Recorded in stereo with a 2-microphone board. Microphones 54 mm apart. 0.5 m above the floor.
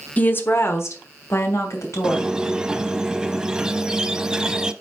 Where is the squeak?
15° right (ahead or behind), 0.5 m.